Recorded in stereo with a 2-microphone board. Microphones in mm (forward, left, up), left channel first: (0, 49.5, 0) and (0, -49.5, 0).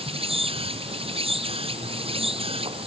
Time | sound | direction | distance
0.0 | an insect | 70° right (ahead or behind) | ?